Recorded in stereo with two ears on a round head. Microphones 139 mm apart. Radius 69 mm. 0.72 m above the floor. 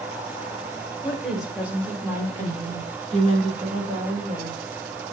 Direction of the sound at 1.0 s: 5° left (ahead or behind).